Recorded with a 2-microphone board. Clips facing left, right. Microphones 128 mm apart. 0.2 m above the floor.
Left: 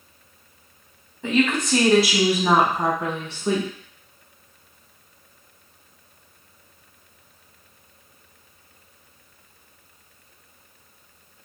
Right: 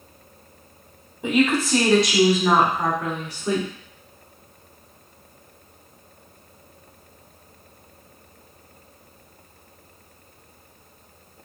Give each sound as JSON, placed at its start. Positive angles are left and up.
{"t": 1.2, "sound": "a woman speaking", "side_deg": -15, "distance_m": 1.0}